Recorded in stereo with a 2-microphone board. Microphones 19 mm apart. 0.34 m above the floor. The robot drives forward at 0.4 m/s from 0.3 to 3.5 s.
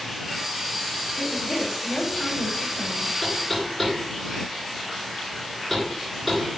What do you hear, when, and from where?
1.2 s a woman speaking: 20° left (ahead or behind), 3.5 m; by 3.1 s 15° left (ahead or behind), 4.5 m
3.2 s knocking: 5° left (ahead or behind), 3 m